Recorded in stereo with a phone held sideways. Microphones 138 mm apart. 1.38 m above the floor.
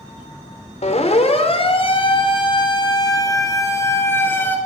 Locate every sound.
0.8 s a siren: 60° left (ahead or behind), 4.5 m; by 4.6 s 15° left (ahead or behind), 5 m